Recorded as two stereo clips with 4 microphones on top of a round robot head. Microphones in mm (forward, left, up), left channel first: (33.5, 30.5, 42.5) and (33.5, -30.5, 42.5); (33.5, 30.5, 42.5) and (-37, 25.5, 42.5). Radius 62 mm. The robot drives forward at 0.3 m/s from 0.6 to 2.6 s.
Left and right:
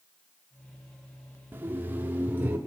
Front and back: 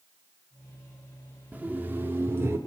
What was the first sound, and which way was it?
Laughter, 125° right.